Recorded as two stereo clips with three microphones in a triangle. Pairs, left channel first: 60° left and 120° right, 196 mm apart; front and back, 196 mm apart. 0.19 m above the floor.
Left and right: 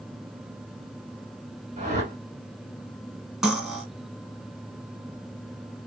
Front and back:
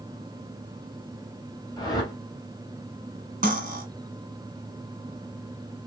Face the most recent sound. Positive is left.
turn(degrees=155)